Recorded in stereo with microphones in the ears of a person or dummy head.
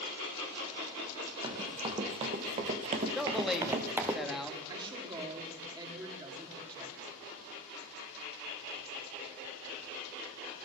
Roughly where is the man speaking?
Centre.